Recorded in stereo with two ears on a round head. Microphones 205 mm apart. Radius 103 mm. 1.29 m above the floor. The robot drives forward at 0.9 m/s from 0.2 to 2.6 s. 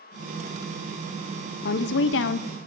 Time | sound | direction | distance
1.6 | a woman speaking | 40° left (ahead or behind) | 0.7 m